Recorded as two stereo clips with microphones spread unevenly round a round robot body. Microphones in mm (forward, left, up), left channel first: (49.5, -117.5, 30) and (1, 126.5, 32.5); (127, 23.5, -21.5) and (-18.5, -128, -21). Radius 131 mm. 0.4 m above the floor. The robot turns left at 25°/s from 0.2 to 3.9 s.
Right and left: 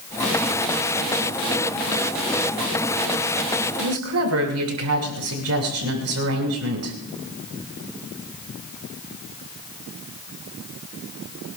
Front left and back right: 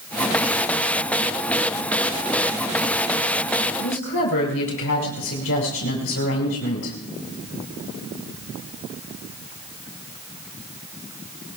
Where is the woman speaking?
80° left, 6.5 m.